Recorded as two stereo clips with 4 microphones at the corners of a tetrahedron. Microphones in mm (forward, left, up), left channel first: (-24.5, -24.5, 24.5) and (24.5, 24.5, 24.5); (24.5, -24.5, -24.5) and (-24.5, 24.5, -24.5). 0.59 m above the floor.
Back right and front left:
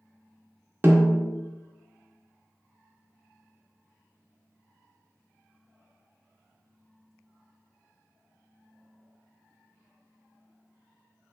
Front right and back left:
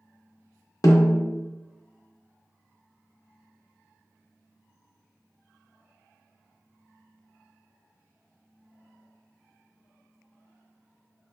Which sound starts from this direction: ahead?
A snare drum, at 0.8 s.